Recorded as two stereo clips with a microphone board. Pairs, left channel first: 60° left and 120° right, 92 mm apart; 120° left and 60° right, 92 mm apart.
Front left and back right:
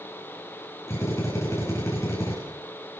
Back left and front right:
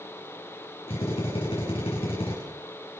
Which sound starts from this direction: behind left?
A drill, at 0.9 s.